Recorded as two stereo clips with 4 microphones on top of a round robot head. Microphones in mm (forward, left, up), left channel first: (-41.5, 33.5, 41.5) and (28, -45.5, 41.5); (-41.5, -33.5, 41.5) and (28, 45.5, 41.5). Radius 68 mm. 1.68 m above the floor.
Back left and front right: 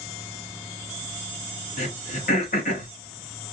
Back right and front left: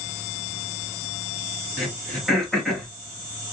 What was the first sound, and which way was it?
Throat clearing, 140° left.